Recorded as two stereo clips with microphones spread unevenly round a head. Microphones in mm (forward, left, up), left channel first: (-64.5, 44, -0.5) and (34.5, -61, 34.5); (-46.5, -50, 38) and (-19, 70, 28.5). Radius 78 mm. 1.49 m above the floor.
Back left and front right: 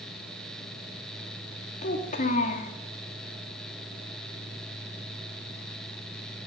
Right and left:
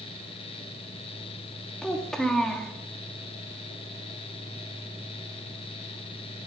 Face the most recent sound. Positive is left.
turn(degrees=175)